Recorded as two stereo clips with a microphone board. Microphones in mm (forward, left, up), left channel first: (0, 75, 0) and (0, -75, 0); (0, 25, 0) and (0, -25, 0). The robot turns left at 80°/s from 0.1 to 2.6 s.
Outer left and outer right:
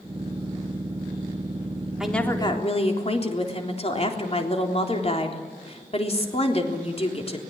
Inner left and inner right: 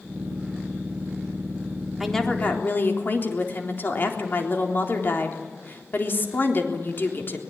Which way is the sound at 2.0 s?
175° right.